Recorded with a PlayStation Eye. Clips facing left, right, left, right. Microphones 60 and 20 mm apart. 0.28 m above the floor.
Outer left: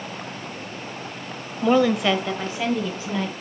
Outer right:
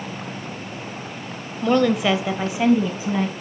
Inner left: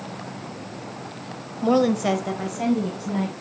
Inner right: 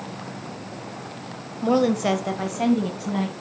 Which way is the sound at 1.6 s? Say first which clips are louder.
Even, inner left 1 dB; 10° left (ahead or behind).